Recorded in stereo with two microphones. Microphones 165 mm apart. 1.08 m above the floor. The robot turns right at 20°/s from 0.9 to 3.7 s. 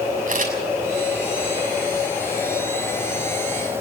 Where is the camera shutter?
55° right (ahead or behind), 6.5 m.